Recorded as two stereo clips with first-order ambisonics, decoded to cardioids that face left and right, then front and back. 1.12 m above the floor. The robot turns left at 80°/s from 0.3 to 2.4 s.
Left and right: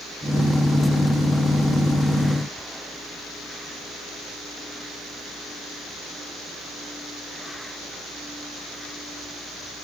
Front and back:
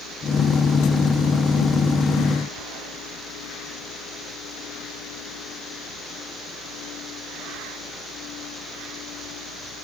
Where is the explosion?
No explosion in this recording.